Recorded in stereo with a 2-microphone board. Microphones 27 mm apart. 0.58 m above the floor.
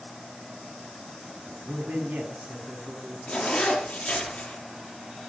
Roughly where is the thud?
I don't hear a thud.